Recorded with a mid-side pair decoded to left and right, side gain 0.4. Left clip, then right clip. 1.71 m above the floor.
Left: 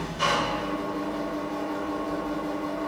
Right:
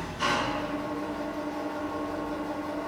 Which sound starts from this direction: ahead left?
An engine running, at 0.0 s.